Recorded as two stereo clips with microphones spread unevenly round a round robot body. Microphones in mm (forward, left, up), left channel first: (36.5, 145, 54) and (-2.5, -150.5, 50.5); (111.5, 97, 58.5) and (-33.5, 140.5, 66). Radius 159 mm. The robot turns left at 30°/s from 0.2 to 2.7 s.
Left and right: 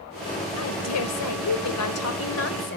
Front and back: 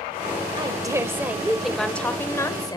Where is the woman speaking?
105° left, 2 m; by 2.8 s 40° left, 2 m.